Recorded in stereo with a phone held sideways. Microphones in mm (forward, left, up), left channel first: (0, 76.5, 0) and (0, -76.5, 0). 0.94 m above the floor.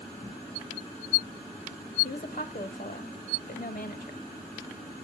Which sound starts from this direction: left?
A woman speaking, at 2.0 s.